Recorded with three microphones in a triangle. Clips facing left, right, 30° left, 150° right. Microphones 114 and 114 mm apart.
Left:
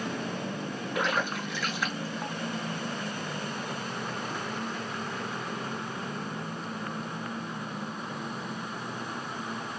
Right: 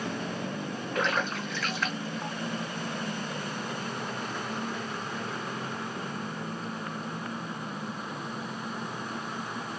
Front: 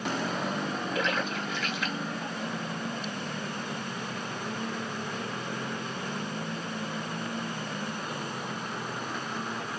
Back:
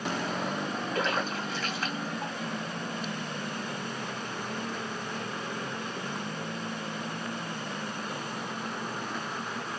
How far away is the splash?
About 2 m.